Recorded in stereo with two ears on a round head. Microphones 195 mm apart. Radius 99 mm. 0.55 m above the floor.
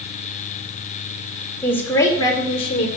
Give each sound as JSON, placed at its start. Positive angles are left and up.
{"t": 1.6, "sound": "a woman speaking", "side_deg": 5, "distance_m": 1.7}